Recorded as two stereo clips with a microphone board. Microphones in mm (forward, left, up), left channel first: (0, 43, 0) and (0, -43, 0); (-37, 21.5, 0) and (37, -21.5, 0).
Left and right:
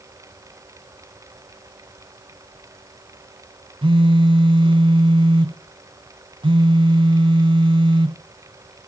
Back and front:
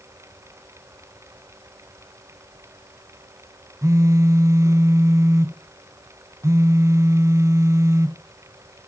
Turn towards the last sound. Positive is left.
turn(degrees=-85)